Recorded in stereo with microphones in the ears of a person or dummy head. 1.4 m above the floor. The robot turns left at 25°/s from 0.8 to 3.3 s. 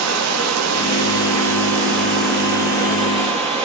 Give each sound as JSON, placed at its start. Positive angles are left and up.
{"t": 0.0, "sound": "running water", "azimuth_deg": -90, "distance_m": 0.9}